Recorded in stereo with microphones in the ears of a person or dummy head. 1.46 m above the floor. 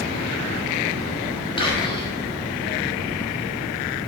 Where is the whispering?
25° left (ahead or behind), 0.7 m.